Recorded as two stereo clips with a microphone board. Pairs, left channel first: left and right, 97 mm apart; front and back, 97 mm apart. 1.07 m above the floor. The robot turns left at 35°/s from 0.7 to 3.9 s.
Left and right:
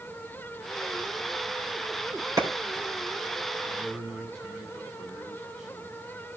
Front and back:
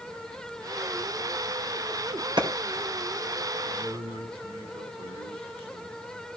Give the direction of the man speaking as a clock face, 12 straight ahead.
6 o'clock.